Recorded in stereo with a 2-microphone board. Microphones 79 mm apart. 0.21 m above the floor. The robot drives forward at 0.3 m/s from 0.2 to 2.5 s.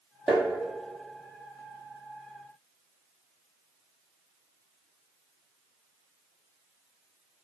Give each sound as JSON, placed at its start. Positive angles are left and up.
{"t": 0.3, "sound": "tapping", "side_deg": 0, "distance_m": 1.9}